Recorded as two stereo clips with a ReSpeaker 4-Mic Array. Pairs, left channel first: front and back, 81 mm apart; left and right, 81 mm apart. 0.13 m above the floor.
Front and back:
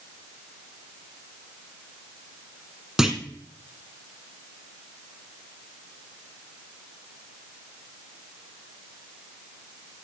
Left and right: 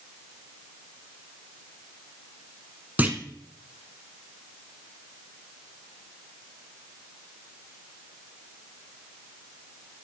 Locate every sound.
3.0 s a clunk: 110° right, 1.0 m